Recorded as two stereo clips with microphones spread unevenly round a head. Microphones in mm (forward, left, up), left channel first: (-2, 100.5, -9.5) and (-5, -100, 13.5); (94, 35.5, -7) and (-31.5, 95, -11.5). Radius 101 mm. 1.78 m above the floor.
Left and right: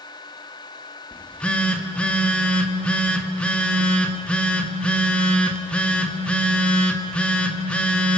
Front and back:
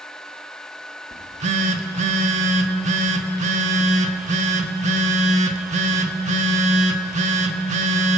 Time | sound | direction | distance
1.1 | a phone buzzing | straight behind | 1.6 m